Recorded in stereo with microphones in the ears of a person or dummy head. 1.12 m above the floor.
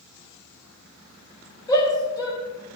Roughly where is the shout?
Centre.